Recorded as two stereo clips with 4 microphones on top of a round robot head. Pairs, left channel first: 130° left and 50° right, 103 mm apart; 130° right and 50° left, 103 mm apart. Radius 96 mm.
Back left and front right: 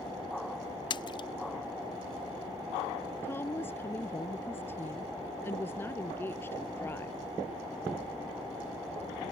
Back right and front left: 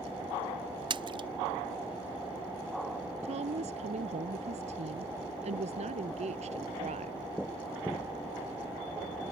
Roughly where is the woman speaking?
Ahead left.